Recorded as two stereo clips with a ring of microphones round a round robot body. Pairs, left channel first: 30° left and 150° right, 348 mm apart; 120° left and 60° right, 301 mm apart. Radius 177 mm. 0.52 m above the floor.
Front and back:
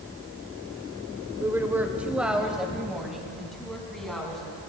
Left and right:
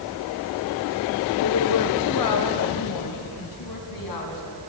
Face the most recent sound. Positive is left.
turn(degrees=120)